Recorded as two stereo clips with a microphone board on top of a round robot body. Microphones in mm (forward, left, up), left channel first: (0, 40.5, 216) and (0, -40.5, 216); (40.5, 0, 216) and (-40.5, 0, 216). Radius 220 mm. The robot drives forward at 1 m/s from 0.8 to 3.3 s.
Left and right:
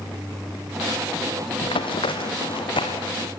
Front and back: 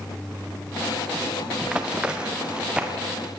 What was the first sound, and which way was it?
Running footsteps, 100° left.